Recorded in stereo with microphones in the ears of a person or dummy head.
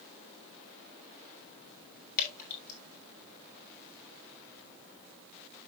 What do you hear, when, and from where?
2.2 s dripping: 50° left (ahead or behind), 6 m